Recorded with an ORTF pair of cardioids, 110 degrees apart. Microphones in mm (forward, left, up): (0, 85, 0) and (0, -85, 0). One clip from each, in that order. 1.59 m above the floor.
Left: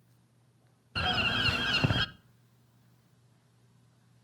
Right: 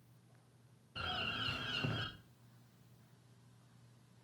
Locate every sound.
0.9 s a bird: 65° left, 0.6 m